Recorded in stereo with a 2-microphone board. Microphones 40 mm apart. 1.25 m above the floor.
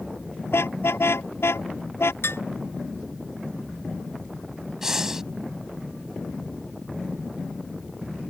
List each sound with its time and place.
0.5 s a car horn: 85° left
2.2 s dishes clattering: 85° left
4.8 s breathing: 15° right (ahead or behind)